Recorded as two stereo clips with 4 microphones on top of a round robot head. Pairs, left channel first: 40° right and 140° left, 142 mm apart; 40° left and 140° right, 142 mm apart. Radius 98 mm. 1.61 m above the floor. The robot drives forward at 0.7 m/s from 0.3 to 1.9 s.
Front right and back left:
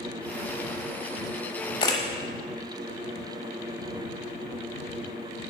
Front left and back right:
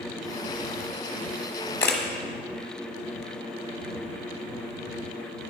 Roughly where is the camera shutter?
Ahead.